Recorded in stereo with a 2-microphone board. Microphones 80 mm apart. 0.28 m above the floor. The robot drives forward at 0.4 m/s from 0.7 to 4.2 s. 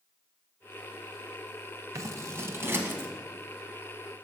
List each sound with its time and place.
1.9 s scissors: 45° right (ahead or behind), 0.7 m; by 3.1 s 25° right (ahead or behind), 1.0 m